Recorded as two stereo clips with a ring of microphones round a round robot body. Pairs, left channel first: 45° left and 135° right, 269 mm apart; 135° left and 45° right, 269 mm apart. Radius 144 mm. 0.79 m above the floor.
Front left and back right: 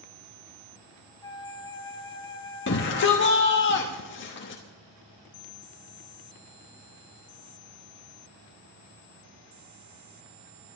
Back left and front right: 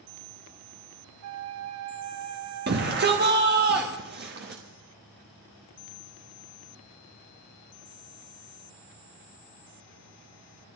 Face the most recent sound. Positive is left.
turn(degrees=5)